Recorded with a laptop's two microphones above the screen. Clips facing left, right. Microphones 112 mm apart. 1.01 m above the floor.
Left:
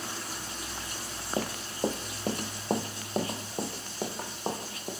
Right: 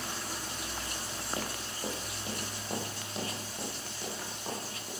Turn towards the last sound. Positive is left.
turn(degrees=45)  # may be behind; listen again after turning